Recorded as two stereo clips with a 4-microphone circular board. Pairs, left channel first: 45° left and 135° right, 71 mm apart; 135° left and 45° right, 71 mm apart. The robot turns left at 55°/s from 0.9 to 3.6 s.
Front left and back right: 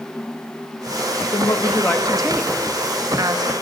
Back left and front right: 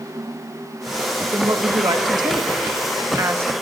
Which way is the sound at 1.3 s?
10° left.